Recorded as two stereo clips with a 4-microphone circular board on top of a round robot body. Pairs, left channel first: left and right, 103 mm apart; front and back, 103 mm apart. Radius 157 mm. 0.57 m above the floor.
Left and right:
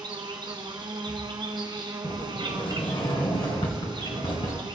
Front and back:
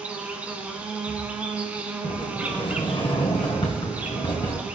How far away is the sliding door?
About 1.5 m.